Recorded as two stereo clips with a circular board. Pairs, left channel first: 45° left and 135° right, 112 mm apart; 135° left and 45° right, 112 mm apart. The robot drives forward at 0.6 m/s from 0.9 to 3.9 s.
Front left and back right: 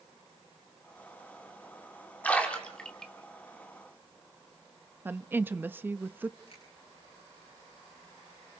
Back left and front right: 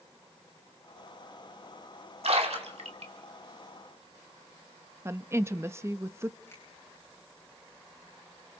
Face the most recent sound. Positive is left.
turn(degrees=70)